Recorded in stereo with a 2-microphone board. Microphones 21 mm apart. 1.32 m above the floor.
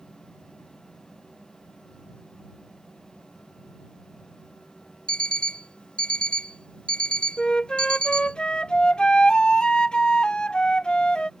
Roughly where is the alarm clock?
Left.